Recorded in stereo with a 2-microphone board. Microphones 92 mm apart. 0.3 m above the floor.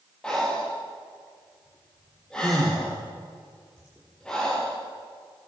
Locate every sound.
0.2 s breathing: 10° left (ahead or behind), 6.5 m